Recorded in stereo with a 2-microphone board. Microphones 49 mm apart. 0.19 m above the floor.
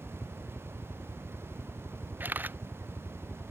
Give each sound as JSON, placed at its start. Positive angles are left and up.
{"t": 0.0, "sound": "a helicopter", "side_deg": 20}
{"t": 2.2, "sound": "a camera shutter", "side_deg": -40}